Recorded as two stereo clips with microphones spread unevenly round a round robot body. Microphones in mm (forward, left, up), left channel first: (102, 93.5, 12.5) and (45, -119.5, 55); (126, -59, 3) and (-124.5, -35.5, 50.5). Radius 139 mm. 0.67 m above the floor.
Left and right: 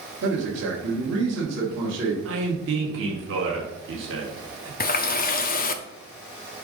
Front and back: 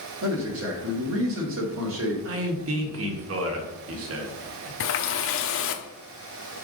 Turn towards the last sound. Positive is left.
turn(degrees=30)